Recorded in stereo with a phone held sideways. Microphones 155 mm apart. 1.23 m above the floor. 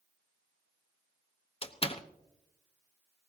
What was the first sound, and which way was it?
A door slam, 40° left (ahead or behind).